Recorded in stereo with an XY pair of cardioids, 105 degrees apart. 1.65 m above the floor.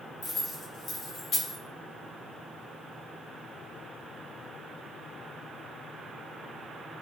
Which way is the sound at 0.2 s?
35° left.